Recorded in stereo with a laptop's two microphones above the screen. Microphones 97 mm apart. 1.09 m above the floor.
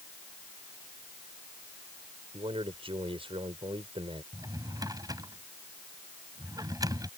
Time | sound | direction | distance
2.3 | a man speaking | 80° right | ?
4.3 | a drawer | 40° right (ahead or behind) | ?